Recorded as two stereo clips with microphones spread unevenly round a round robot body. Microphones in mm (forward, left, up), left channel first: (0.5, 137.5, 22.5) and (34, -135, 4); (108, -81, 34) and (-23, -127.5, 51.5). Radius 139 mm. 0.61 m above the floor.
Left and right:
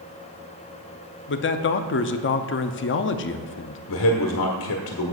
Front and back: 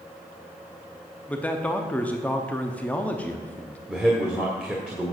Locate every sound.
1.3 s a man speaking: 85° left, 0.6 m
3.9 s a man speaking: 115° left, 1.4 m